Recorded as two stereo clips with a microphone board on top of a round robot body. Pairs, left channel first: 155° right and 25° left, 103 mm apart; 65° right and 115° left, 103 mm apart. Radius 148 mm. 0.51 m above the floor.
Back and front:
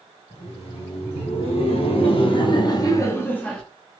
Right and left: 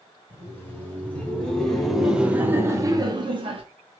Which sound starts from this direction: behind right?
Laughter, at 0.3 s.